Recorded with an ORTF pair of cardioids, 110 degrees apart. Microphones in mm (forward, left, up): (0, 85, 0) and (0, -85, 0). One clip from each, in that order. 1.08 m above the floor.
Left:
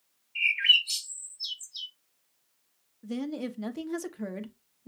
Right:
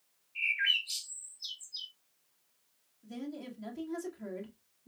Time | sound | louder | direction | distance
0.3 | a bird | left 7 dB | 35° left | 1.9 m
3.0 | a woman speaking | left 8 dB | 55° left | 1.0 m